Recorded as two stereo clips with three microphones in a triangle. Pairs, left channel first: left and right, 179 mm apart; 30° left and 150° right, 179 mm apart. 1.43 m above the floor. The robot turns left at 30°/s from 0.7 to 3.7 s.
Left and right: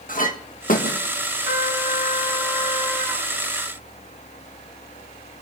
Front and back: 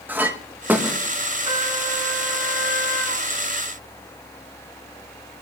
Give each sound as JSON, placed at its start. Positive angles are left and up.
{"t": 0.1, "sound": "a clink", "azimuth_deg": 130, "distance_m": 1.2}
{"t": 1.4, "sound": "a trumpet", "azimuth_deg": 70, "distance_m": 6.0}